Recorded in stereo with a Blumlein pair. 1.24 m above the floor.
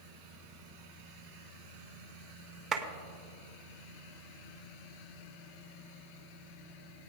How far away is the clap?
About 1.3 m.